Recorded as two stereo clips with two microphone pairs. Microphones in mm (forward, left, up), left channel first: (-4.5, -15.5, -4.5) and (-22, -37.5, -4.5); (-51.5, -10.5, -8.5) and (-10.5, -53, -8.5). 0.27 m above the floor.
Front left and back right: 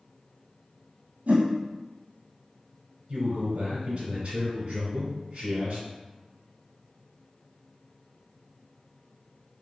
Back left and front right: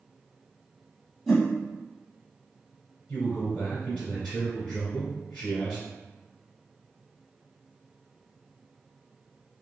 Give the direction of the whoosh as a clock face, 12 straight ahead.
5 o'clock.